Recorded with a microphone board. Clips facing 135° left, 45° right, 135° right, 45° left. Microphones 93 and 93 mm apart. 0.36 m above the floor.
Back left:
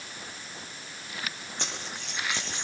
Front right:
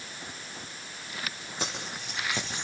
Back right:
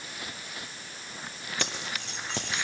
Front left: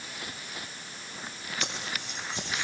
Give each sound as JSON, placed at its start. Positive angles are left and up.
{"t": 1.6, "sound": "keys jangling", "azimuth_deg": -130, "distance_m": 9.0}